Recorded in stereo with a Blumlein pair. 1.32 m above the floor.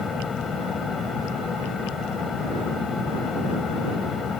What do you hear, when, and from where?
0.0 s a fan: 15° left